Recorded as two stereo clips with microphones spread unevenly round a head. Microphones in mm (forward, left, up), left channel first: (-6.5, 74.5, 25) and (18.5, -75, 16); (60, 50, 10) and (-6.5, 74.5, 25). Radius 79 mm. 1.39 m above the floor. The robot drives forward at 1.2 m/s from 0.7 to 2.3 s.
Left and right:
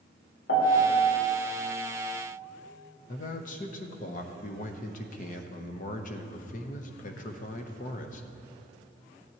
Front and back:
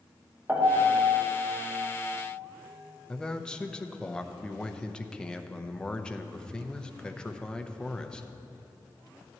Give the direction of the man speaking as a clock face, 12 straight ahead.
10 o'clock.